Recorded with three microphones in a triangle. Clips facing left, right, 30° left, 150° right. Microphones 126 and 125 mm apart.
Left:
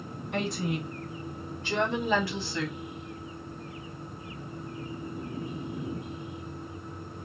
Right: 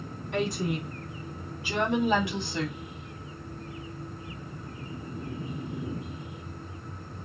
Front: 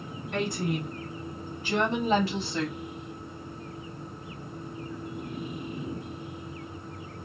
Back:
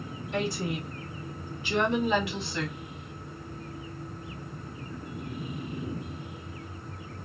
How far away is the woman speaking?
About 3.5 m.